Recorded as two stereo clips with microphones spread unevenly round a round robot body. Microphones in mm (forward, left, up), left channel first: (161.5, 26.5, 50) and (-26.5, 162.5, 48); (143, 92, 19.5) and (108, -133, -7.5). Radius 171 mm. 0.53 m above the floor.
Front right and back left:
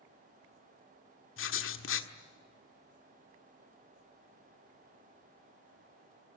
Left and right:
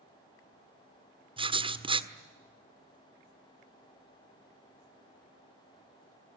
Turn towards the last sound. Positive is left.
turn(degrees=-40)